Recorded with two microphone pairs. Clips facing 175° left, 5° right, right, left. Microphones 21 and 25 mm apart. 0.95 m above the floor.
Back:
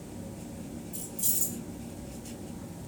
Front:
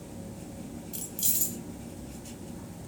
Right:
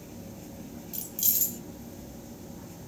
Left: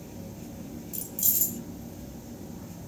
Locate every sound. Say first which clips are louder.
0.9 s keys jangling: front 2 dB, even; 35° right, 0.6 m